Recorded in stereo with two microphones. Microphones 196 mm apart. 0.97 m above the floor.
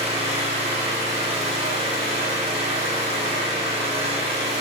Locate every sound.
0.0 s an engine running: 30° right (ahead or behind), 1.2 m